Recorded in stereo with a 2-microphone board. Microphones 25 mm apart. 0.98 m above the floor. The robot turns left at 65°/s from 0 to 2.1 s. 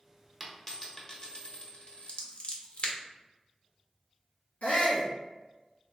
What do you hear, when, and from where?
0.4 s a dropped coin: straight behind, 0.8 m; by 2.2 s 70° left, 0.8 m
2.1 s scissors: 50° left (ahead or behind), 0.6 m
4.6 s a shout: 65° left (ahead or behind), 1.0 m